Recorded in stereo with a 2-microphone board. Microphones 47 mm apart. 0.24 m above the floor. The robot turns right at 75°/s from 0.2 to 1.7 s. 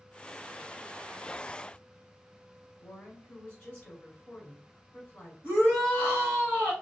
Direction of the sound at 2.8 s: 35° left (ahead or behind).